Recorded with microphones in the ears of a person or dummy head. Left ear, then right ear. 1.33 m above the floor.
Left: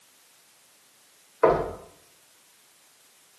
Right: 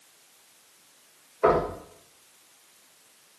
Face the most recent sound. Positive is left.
turn(degrees=70)  # may be behind; listen again after turning